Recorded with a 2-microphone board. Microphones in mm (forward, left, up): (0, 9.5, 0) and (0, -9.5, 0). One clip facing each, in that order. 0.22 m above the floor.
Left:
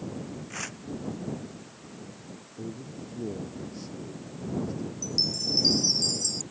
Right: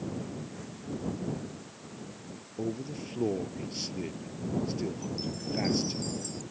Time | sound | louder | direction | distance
0.5 | tearing paper | left 7 dB | 80° left | ?
2.6 | a man speaking | right 5 dB | 50° right (ahead or behind) | ?
5.0 | a chime | left 8 dB | 55° left (ahead or behind) | ?